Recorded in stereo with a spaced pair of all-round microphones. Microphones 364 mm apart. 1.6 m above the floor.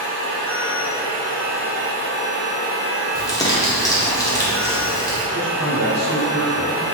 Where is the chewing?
No chewing in this recording.